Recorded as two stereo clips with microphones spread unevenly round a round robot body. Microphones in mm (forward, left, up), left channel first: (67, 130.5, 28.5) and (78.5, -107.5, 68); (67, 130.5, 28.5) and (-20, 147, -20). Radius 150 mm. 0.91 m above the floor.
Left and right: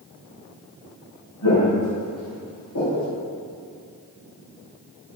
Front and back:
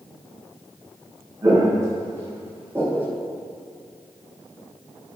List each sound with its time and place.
1.4 s footsteps: 105° left, 2 m; by 3.1 s 90° left, 3 m